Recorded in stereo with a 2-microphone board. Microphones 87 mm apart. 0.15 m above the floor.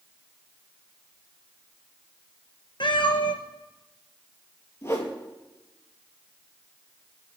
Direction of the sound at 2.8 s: 70° left (ahead or behind).